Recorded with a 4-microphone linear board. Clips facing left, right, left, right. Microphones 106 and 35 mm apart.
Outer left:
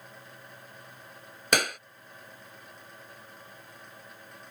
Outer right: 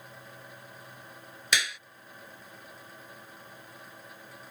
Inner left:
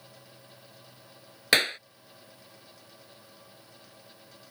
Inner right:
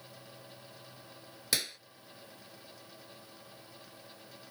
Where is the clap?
50° left (ahead or behind).